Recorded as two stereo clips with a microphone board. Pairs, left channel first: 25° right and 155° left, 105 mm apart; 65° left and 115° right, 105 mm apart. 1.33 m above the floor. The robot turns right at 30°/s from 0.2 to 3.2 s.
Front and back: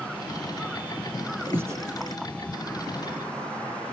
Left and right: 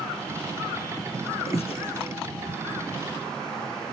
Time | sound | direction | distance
1.5 | breathing | 85° left | 0.8 m